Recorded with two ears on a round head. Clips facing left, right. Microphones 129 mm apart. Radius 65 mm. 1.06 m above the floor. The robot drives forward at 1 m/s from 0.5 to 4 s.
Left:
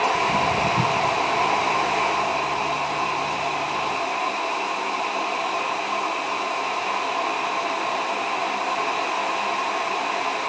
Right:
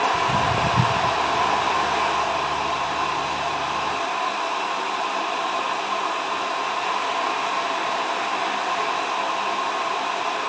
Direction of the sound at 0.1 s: Centre (ahead or behind).